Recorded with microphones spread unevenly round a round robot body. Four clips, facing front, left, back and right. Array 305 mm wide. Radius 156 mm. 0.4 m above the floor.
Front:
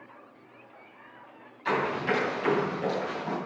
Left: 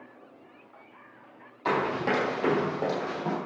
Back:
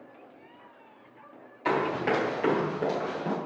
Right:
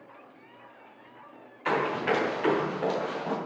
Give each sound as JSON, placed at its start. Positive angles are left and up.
{"t": 1.6, "sound": "running footsteps", "azimuth_deg": 140, "distance_m": 5.0}